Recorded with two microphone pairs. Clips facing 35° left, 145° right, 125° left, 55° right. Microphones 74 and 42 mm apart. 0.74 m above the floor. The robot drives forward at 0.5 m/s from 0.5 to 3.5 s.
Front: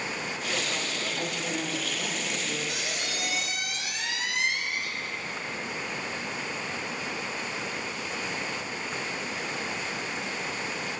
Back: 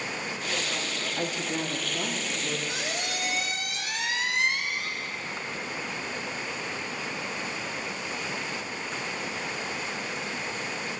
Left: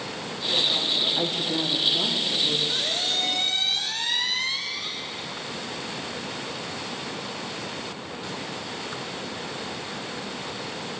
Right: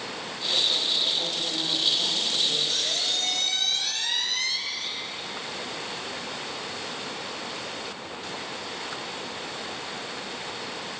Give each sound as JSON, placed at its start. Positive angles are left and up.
{"t": 1.2, "sound": "a woman speaking", "azimuth_deg": 155, "distance_m": 0.7}
{"t": 2.7, "sound": "a squeak", "azimuth_deg": 175, "distance_m": 0.7}